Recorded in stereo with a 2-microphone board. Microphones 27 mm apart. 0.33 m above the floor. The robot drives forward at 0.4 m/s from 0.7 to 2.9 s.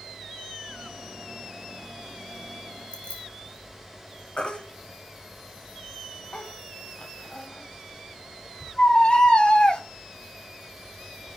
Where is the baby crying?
45° left (ahead or behind), 1.1 m.